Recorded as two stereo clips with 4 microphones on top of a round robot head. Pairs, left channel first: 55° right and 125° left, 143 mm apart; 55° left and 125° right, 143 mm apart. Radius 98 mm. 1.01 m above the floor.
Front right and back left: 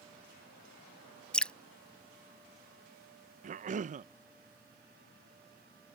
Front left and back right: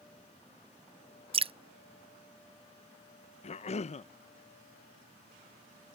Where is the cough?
95° left.